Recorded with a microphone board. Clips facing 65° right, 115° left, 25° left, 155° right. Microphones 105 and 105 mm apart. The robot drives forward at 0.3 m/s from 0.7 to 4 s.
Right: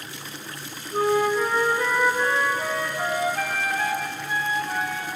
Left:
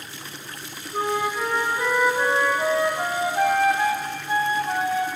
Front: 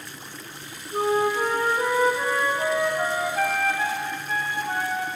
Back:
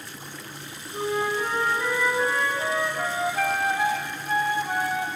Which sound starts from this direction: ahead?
A flute, at 0.9 s.